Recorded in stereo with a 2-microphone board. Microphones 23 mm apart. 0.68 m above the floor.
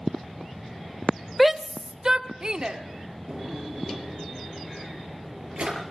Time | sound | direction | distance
1.4 | a shout | centre (ahead or behind) | 0.7 m
3.3 | a drawer | 45° right (ahead or behind) | 6 m